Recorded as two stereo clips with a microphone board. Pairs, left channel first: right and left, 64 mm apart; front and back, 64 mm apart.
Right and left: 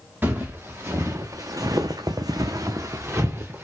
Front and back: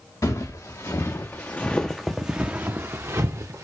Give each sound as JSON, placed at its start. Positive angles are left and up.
{"t": 0.2, "sound": "footsteps", "azimuth_deg": 30, "distance_m": 1.3}